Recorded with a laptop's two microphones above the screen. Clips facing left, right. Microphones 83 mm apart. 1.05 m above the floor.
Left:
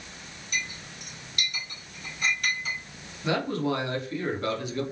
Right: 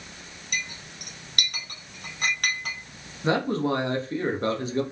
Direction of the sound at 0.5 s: 60° right (ahead or behind).